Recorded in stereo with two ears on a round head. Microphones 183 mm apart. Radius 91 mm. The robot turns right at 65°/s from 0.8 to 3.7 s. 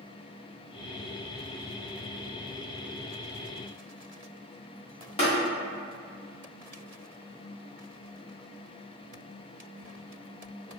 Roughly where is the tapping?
Left.